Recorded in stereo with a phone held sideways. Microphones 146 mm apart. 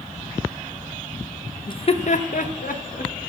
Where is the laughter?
30° left (ahead or behind), 0.6 m; by 3.1 s 75° left (ahead or behind), 1.6 m.